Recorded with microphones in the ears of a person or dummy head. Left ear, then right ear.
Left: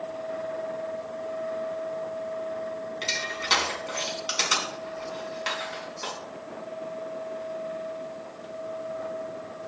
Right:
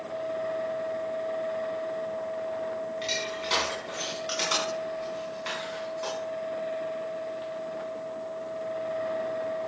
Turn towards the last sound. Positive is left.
turn(degrees=15)  # may be behind; listen again after turning